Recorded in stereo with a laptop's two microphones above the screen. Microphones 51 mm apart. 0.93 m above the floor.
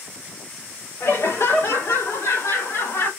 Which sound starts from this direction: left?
Laughter, at 1.0 s.